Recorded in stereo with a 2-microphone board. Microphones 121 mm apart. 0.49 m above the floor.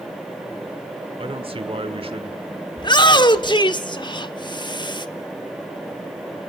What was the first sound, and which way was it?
A man speaking, 50° right (ahead or behind).